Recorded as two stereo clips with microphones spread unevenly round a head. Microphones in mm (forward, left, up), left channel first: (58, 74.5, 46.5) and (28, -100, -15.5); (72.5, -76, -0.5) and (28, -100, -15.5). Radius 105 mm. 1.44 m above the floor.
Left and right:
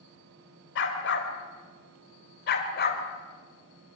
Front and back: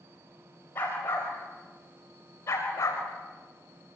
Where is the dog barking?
85° left, 3.5 m; by 3.0 s 55° left, 3.5 m.